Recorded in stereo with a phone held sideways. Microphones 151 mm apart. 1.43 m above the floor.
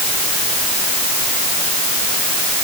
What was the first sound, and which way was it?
Only background noise.